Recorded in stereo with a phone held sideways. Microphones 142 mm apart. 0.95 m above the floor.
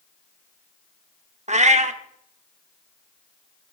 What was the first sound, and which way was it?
A cat meowing, 55° right (ahead or behind).